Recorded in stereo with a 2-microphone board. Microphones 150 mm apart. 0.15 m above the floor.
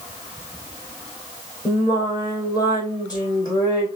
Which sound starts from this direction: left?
Singing, at 1.6 s.